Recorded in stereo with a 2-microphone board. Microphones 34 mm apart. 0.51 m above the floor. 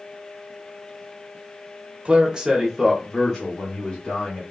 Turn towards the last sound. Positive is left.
turn(degrees=30)  # may be behind; listen again after turning